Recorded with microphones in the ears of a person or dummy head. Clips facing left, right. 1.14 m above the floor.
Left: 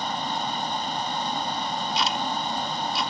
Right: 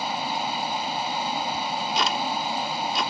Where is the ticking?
50° right (ahead or behind).